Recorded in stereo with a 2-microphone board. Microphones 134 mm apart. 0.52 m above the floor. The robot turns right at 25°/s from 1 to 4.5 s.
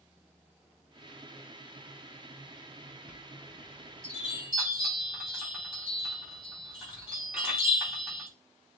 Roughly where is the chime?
Left.